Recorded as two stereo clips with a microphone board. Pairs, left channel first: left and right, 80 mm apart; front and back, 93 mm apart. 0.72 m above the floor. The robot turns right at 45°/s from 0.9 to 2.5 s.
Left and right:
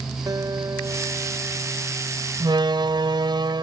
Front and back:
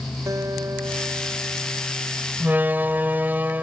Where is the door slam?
115° right; by 3.6 s 110° right.